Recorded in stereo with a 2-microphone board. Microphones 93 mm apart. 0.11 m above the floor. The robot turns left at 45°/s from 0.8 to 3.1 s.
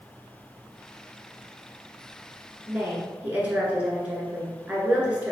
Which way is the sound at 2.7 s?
20° right (ahead or behind).